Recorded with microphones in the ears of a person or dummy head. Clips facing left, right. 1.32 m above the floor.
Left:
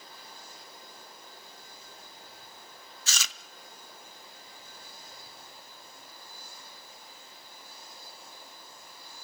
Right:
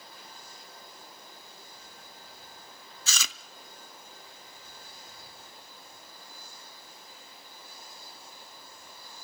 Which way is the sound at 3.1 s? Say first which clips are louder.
Right 1 dB; 65° right (ahead or behind).